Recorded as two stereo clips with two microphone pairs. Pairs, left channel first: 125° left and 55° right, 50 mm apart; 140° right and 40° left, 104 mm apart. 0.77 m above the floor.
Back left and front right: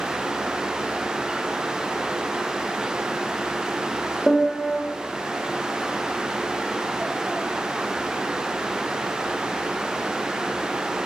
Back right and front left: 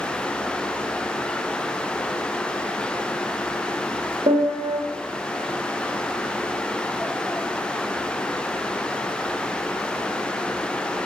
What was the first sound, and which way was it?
A piano, 40° left.